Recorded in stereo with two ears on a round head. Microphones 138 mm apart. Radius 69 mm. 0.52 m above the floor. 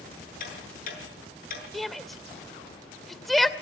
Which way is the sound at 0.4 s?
60° left (ahead or behind).